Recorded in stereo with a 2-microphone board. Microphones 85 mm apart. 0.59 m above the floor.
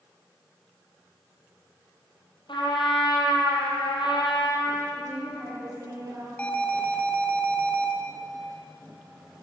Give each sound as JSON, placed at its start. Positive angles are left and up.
{"t": 2.5, "sound": "a trumpet", "side_deg": 70, "distance_m": 8.0}
{"t": 5.0, "sound": "a woman speaking", "side_deg": -30, "distance_m": 9.5}
{"t": 6.4, "sound": "an alarm", "side_deg": 15, "distance_m": 4.0}